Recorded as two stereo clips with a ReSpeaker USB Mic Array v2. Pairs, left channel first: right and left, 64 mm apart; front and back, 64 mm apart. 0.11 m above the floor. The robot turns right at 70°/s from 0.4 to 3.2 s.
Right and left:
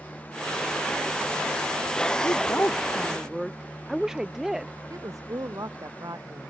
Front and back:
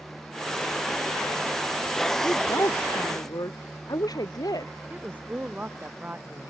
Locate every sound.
2.2 s a woman speaking: 60° right; by 4.7 s 10° left
4.9 s a woman speaking: 115° left